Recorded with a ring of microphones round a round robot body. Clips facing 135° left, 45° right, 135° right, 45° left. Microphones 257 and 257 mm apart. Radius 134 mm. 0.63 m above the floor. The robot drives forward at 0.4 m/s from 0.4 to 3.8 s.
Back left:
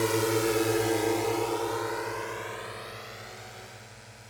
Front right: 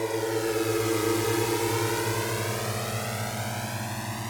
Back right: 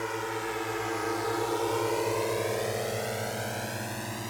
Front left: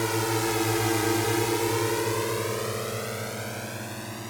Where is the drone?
70° left; by 4.3 s 45° right.